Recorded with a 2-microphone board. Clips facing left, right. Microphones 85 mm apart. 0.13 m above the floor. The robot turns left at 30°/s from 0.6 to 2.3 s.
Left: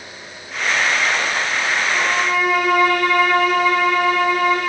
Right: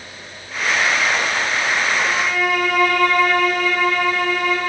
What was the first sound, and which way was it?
A violin, 40° left (ahead or behind).